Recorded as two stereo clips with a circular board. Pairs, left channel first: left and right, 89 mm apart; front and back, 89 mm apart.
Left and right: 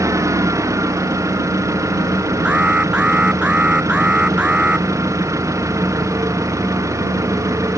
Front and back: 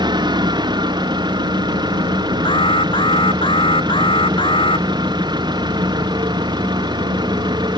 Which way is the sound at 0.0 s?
145° right.